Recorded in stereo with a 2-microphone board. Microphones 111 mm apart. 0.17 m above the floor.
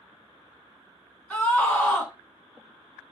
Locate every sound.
1.3 s a scream: 15° left (ahead or behind), 1.5 m